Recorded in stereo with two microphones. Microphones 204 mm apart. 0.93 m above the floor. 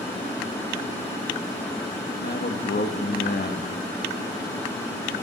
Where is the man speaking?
55° left (ahead or behind), 1.4 m.